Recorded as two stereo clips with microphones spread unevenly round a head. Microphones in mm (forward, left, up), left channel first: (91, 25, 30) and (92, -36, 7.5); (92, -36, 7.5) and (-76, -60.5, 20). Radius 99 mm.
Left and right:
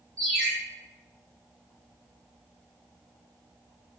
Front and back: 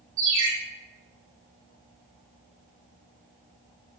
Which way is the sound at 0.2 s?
170° left.